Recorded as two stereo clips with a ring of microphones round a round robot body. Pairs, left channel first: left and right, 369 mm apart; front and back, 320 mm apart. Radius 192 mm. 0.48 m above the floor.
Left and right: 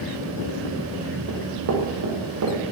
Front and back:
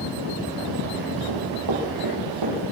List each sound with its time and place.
1.3 s running footsteps: 145° right, 6.5 m; by 2.6 s 140° right, 8 m